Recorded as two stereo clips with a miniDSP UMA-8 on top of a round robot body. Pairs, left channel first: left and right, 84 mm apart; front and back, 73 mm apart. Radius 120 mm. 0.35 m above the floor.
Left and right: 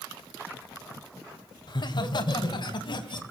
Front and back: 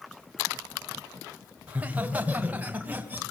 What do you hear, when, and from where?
1.7 s laughter: 110° left, 3 m